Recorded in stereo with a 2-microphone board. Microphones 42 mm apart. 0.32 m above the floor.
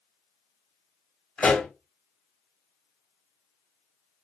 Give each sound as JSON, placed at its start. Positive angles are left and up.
{"t": 1.4, "sound": "a pop", "side_deg": 30, "distance_m": 1.6}